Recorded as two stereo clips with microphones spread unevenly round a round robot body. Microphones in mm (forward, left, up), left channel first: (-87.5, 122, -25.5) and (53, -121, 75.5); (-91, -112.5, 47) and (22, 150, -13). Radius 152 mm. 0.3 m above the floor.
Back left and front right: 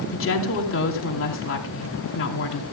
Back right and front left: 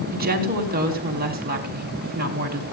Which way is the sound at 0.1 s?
115° left.